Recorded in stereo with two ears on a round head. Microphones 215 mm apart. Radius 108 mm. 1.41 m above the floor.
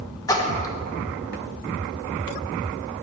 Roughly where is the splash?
Centre.